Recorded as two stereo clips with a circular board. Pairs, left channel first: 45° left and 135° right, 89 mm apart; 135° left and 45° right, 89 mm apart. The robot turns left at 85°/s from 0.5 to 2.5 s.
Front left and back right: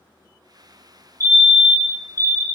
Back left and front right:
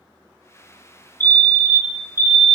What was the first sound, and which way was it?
A fire alarm, 80° left.